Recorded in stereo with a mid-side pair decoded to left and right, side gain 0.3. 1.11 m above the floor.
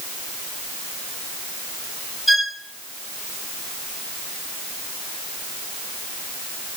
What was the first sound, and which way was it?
A violin, 20° left.